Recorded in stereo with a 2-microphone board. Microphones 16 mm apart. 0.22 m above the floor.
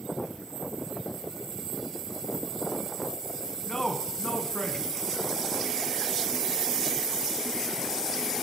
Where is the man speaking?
45° left (ahead or behind), 2.0 m.